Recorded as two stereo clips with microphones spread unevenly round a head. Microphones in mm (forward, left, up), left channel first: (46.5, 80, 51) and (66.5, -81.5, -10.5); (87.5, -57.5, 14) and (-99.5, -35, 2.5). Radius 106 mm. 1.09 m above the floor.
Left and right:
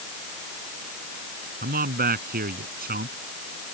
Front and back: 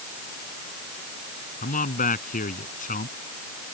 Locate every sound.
1.6 s a man speaking: 55° right